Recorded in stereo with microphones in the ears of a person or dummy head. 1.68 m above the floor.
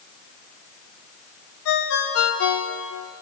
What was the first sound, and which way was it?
A ringtone, 75° left (ahead or behind).